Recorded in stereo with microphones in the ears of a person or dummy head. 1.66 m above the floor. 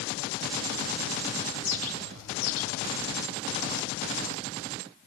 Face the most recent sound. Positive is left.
turn(degrees=75)  # may be behind; listen again after turning